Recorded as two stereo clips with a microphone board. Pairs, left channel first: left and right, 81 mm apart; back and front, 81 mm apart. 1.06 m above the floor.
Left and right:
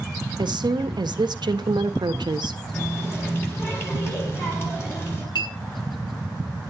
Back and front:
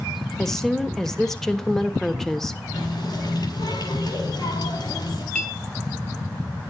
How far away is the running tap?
About 4.5 m.